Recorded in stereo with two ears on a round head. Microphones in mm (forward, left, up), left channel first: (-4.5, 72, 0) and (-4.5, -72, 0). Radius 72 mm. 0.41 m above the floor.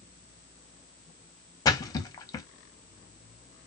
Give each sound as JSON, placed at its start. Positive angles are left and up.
{"t": 1.6, "sound": "a splash", "side_deg": 25, "distance_m": 0.6}